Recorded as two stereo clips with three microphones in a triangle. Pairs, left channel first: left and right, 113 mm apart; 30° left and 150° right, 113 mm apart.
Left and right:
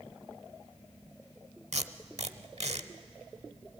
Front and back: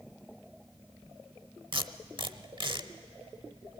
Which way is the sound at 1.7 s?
105° right.